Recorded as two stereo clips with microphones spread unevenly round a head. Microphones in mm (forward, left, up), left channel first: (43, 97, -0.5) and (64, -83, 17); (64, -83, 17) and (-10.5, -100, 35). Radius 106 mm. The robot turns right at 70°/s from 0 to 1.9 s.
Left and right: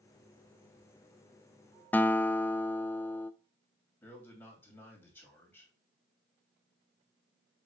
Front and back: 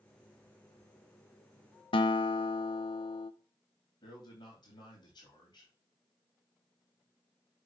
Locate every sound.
1.9 s a guitar: 15° left, 0.6 m
4.0 s a man speaking: 20° left, 3 m